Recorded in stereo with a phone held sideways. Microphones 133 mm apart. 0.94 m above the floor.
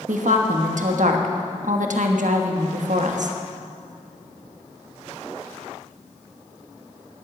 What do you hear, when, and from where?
0.1 s a woman speaking: 70° right (ahead or behind), 1.2 m